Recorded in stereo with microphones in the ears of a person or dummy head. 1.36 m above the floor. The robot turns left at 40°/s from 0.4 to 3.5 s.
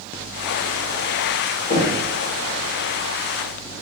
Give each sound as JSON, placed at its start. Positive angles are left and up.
{"t": 1.7, "sound": "knocking", "side_deg": 35, "distance_m": 1.4}